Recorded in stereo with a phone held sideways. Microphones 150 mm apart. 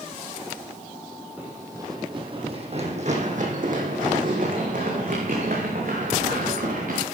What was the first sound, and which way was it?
Running footsteps, 10° right (ahead or behind).